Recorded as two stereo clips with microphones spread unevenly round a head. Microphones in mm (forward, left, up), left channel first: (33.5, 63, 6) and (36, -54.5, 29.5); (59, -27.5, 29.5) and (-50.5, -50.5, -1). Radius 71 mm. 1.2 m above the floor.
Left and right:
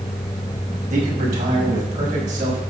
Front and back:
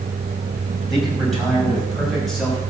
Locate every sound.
0.9 s a man speaking: 75° right, 6 m